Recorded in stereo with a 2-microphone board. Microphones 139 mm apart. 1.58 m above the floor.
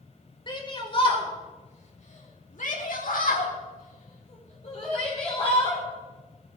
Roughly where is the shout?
Left.